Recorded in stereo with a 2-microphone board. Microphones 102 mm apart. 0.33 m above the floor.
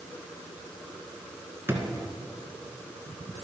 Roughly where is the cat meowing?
No cat meowing in this recording.